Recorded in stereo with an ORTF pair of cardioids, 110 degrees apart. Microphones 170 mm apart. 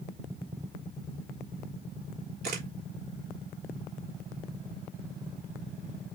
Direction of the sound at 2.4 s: 60° right.